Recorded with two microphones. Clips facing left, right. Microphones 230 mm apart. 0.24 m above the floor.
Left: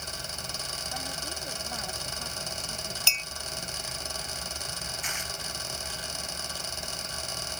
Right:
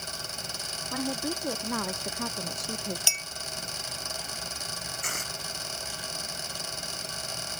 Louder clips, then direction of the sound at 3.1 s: Even; 10° right (ahead or behind).